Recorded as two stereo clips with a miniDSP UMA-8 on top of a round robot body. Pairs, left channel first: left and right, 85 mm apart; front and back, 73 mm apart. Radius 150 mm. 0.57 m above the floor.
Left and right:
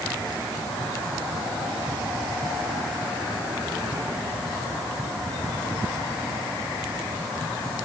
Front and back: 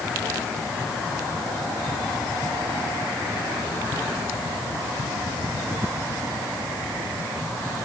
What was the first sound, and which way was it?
Only background noise.